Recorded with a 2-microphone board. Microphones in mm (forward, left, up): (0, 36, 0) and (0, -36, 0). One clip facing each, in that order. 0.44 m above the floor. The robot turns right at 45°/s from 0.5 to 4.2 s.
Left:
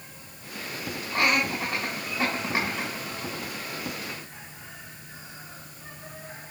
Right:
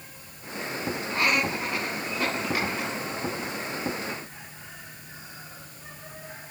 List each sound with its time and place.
1.1 s laughter: 70° left (ahead or behind), 3 m; by 2.9 s 15° left (ahead or behind), 3 m